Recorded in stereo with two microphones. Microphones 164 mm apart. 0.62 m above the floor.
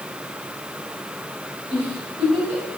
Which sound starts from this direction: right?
A giggle, at 1.7 s.